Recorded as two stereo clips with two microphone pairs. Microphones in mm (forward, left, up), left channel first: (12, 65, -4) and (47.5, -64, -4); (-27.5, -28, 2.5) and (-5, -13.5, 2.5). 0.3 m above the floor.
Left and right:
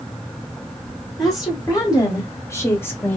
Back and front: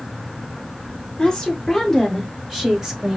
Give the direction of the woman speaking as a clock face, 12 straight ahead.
7 o'clock.